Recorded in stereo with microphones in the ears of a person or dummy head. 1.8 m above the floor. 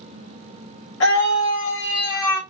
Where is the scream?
75° left (ahead or behind), 3 m; by 2.4 s 70° left (ahead or behind), 2 m.